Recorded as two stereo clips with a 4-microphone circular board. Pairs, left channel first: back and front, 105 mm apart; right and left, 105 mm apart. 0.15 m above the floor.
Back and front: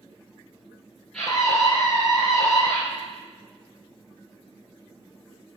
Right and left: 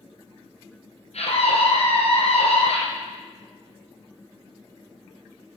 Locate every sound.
1.1 s a scream: 95° right, 4 m